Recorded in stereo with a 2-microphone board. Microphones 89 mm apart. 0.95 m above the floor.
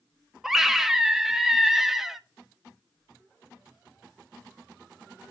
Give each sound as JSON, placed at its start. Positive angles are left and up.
{"t": 0.4, "sound": "a scream", "side_deg": -5, "distance_m": 1.1}